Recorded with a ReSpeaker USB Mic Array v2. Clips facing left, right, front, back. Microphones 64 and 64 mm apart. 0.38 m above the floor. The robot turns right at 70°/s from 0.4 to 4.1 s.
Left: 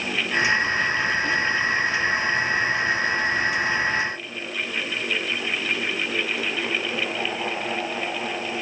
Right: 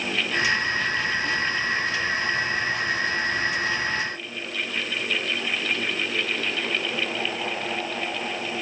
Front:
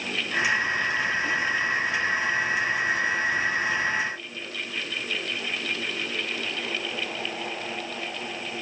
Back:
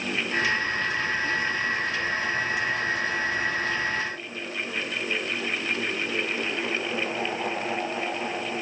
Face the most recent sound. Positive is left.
No sound to turn to.